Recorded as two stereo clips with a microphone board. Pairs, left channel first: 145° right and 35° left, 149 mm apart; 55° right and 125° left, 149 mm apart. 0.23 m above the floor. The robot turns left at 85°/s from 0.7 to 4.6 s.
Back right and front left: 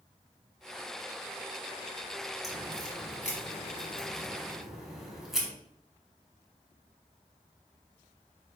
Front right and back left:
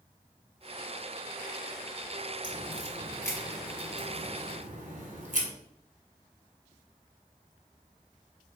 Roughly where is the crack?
Ahead right.